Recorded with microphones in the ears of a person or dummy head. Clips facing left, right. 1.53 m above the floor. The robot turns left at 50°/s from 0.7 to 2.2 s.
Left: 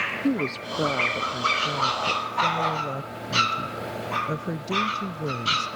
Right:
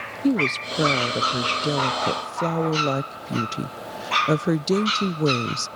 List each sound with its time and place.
0.2 s a woman speaking: 15° right; by 5.7 s 90° right